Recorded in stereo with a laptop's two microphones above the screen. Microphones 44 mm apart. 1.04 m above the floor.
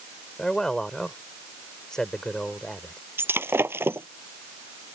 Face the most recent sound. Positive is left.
turn(degrees=-65)  # may be behind; listen again after turning